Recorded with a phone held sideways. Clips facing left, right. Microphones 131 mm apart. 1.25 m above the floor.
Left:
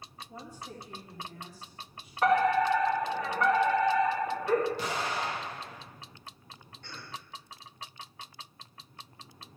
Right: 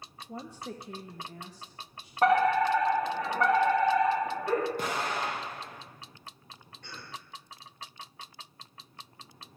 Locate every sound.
0.3 s a woman speaking: 60° right (ahead or behind), 0.6 m; by 2.1 s 80° right, 1.6 m
2.2 s a fire alarm: 50° right (ahead or behind), 2 m
4.8 s an explosion: 50° right (ahead or behind), 1.5 m
6.8 s a cough: 85° right, 4 m